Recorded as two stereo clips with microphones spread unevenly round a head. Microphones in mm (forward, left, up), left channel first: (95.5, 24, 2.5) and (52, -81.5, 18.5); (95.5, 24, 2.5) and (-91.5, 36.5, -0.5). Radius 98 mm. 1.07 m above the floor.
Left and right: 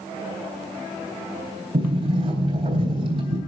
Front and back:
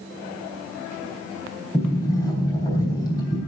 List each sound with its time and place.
1.7 s a sliding door: 80° right, 3 m